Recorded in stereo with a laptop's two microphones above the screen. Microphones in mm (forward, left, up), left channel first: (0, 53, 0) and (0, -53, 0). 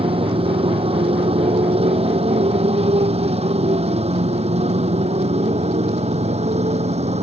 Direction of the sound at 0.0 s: 60° right (ahead or behind).